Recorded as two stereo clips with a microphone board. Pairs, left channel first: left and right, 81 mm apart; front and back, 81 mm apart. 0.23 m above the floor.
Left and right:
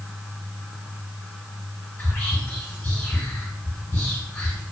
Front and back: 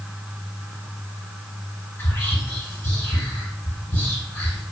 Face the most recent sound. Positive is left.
turn(degrees=35)